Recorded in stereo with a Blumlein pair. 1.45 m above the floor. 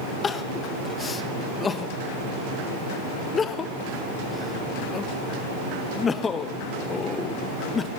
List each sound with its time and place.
0.2 s crying: 20° left, 0.6 m